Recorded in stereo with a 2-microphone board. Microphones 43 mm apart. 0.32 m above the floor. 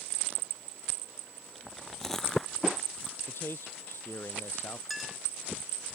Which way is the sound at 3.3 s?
65° left (ahead or behind).